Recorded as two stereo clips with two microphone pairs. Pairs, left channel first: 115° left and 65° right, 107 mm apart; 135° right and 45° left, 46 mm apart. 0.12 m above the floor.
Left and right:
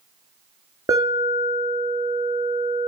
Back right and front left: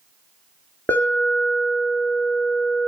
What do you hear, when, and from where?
0.9 s an alarm: 105° right, 3 m